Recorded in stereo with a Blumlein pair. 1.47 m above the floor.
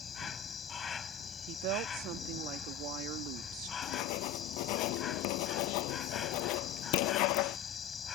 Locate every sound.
0.0 s an insect: 20° left
1.5 s a woman speaking: 40° right
3.8 s writing: 45° left